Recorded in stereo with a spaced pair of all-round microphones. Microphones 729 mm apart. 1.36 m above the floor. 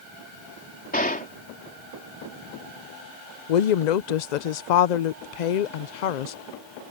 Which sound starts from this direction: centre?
A gunshot, at 0.9 s.